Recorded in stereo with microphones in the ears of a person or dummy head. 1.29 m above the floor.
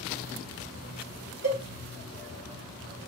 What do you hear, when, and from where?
1.4 s a cowbell: 55° right (ahead or behind), 1.7 m